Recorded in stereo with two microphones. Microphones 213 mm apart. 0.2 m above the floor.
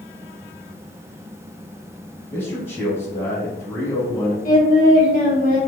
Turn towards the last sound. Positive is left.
turn(degrees=45)  # may be behind; listen again after turning